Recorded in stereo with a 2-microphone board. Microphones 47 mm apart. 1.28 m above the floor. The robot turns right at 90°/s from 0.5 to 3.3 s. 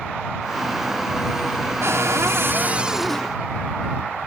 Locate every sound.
1.8 s a cupboard door: 110° right; by 3.3 s 20° left